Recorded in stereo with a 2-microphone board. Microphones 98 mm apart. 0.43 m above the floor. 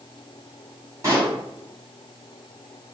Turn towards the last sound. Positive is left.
turn(degrees=-35)  # may be behind; listen again after turning